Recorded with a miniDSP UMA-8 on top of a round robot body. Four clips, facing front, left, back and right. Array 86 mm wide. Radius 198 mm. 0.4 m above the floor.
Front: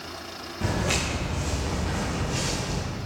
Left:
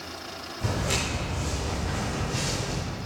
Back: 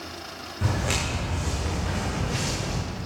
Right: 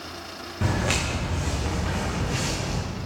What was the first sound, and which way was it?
Footsteps, 90° right.